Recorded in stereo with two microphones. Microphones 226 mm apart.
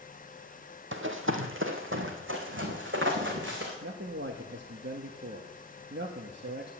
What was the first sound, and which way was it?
Running footsteps, 60° right (ahead or behind).